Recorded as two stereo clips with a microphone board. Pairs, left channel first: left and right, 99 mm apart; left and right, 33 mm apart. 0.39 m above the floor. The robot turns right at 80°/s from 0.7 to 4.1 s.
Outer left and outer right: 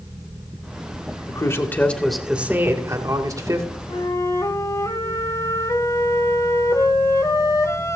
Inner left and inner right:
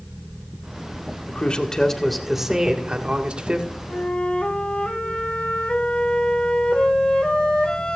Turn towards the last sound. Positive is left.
turn(degrees=35)  # may be behind; listen again after turning